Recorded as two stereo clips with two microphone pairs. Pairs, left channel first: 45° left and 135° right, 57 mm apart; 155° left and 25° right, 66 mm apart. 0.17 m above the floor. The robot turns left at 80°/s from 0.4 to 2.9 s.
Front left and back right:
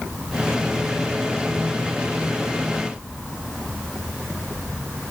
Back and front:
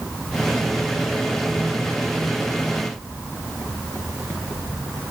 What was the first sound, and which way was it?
Only background noise.